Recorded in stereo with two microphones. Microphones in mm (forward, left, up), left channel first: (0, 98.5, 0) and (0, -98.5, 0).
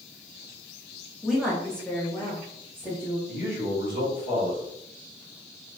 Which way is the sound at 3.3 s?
50° left (ahead or behind).